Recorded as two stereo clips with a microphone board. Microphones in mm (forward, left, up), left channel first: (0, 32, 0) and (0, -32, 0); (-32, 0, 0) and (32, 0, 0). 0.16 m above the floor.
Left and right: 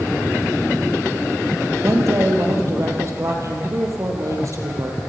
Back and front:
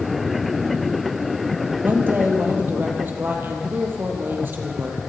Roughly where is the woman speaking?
Ahead right.